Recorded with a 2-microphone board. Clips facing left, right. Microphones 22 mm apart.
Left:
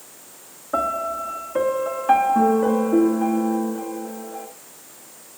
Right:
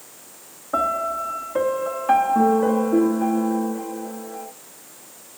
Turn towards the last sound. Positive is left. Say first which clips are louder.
# right 1 dB
turn(degrees=-5)  # may be behind; listen again after turning